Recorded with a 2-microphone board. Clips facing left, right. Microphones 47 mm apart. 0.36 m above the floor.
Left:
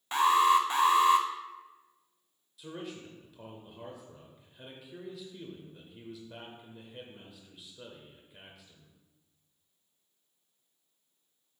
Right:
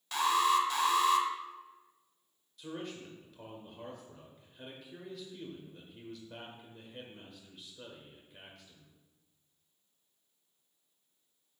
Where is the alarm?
30° left (ahead or behind), 0.8 m.